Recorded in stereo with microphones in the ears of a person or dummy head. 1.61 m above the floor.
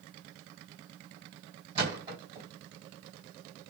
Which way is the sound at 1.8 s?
25° right (ahead or behind).